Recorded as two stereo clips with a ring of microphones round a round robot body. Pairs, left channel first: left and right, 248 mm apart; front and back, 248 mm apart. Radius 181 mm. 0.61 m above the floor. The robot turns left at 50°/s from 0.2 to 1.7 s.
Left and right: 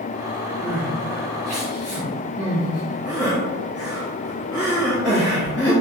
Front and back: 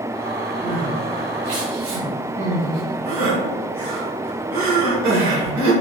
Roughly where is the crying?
Behind right.